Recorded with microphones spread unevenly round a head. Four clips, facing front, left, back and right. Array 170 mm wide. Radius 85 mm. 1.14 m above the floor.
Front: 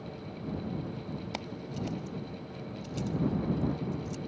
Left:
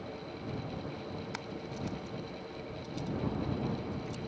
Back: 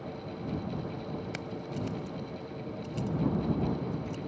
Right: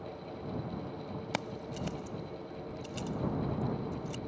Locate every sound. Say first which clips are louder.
1.3 s keys jangling: right 2 dB, back 1 dB; 85° right; by 4.2 s 70° right